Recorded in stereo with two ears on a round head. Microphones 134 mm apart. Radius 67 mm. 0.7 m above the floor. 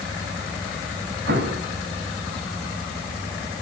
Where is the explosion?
85° right, 4 m.